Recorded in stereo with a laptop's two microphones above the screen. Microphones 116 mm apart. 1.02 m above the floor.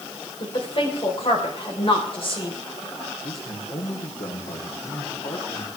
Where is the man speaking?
60° left (ahead or behind), 3 m.